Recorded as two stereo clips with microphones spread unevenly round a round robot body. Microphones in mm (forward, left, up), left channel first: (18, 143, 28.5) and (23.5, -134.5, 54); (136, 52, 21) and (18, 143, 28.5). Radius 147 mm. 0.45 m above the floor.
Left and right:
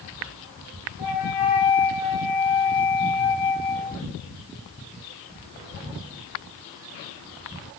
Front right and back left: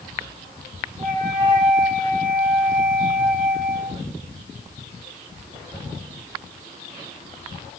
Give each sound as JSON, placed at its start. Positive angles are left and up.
{"t": 1.0, "sound": "a flute", "azimuth_deg": 110, "distance_m": 1.2}